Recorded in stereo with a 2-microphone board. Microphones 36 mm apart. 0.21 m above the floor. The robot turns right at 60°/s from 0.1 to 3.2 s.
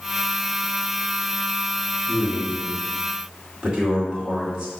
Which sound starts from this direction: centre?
A man speaking, at 2.1 s.